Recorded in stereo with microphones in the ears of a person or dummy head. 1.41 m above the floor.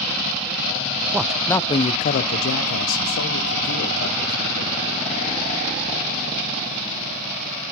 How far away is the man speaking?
About 0.6 m.